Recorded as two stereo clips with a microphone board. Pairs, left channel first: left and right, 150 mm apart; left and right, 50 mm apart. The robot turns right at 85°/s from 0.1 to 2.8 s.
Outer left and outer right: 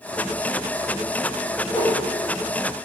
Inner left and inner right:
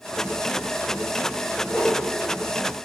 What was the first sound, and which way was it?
A whoosh, 20° left (ahead or behind).